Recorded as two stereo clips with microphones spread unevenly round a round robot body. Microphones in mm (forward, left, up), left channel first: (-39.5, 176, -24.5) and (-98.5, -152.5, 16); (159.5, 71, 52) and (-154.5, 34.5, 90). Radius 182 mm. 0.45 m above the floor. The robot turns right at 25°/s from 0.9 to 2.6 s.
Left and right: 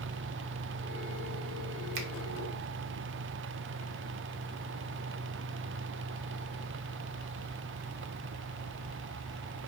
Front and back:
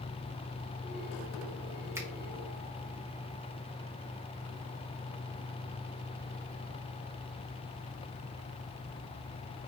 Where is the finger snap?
90° right, 1.0 m; by 2.1 s 85° right, 1.0 m.